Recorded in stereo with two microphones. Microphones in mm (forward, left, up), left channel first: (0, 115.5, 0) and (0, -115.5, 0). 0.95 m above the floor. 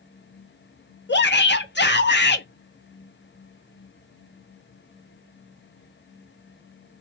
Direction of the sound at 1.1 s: 50° left (ahead or behind).